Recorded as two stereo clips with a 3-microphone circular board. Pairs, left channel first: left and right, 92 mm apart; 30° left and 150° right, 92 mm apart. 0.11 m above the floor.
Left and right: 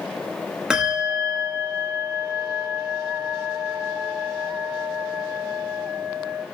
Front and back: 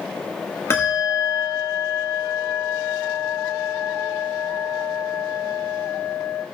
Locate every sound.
0.7 s a bell: 10° right, 2 m